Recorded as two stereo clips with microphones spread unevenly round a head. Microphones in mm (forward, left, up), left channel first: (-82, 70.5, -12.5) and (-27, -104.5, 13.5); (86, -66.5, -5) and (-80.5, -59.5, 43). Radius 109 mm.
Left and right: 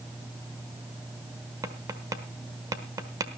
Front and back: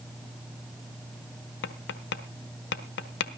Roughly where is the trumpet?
No trumpet in this recording.